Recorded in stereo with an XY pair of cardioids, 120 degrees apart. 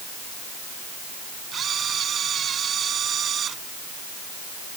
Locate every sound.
1.5 s a camera shutter: 45° right